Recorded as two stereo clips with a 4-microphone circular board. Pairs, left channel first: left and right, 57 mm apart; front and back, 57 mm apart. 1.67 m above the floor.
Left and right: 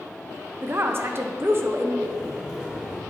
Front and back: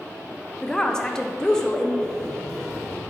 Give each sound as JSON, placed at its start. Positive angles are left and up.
{"t": 0.6, "sound": "a woman speaking", "azimuth_deg": -75, "distance_m": 0.6}
{"t": 2.0, "sound": "a buzzer", "azimuth_deg": -50, "distance_m": 1.4}